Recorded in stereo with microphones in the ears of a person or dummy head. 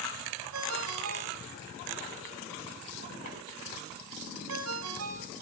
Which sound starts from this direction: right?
A ringtone, at 0.5 s.